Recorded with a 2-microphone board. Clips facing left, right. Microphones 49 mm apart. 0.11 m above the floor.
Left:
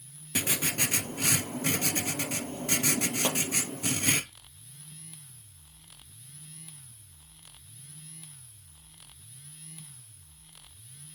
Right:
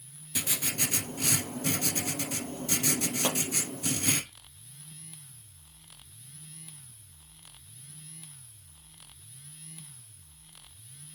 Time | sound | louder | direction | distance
0.3 | writing | left 4 dB | 50° left (ahead or behind) | 0.9 m
3.2 | a pop | right 1 dB | 20° left (ahead or behind) | 3 m